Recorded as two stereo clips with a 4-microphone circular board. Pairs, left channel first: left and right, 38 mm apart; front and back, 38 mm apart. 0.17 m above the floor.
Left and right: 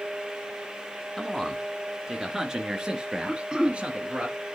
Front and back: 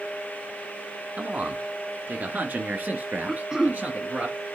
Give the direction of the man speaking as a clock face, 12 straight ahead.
6 o'clock.